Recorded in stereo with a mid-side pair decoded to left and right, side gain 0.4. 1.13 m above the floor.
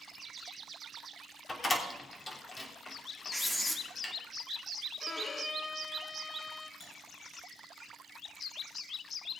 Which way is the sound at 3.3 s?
15° left.